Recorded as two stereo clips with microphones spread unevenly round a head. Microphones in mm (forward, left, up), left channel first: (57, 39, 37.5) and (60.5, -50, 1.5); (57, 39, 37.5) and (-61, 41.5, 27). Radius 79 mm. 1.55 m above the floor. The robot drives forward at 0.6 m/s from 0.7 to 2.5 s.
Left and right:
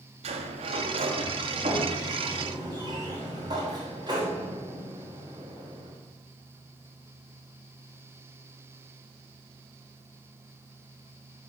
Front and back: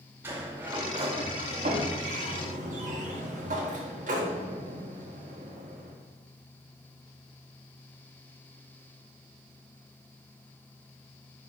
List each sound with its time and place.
0.2 s a sliding door: 105° right, 0.8 m; by 6.0 s 150° right, 1.5 m